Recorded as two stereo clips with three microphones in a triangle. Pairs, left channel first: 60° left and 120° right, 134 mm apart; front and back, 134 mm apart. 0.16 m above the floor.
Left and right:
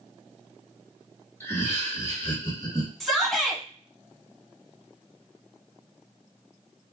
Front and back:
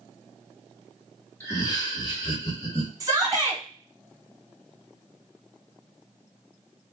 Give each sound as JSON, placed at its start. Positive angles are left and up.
{"t": 1.4, "sound": "laughter", "azimuth_deg": 30, "distance_m": 1.1}
{"t": 3.0, "sound": "a shout", "azimuth_deg": 145, "distance_m": 1.2}